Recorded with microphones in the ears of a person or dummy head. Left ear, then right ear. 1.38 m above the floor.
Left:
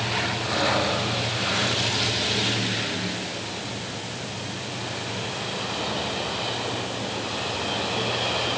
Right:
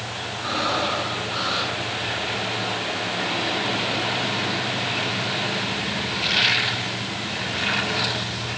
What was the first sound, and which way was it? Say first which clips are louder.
Breathing: right 3 dB; 65° right (ahead or behind).